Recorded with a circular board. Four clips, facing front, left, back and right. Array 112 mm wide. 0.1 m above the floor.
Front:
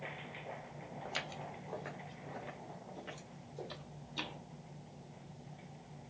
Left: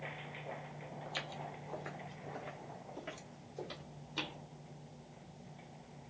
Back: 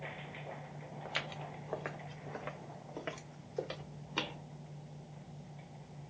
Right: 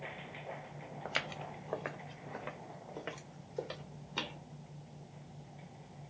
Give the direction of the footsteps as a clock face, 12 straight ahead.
3 o'clock.